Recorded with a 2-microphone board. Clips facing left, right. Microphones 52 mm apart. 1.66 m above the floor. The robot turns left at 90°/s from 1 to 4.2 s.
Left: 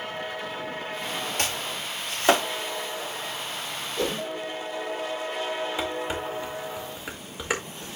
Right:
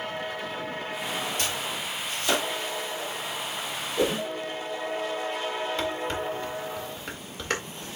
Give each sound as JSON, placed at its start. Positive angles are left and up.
{"t": 1.4, "sound": "chopping", "side_deg": 45, "distance_m": 3.0}
{"t": 4.0, "sound": "a whoosh", "side_deg": -10, "distance_m": 1.4}
{"t": 5.8, "sound": "dishes clattering", "side_deg": 10, "distance_m": 1.9}